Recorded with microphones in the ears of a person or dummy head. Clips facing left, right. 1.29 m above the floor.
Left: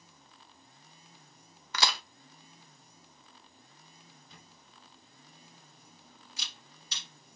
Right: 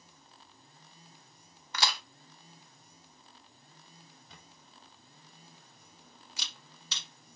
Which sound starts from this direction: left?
A crack, at 1.7 s.